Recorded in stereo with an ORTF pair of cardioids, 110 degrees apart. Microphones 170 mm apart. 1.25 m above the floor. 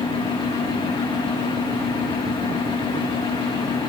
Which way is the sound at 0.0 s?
30° left.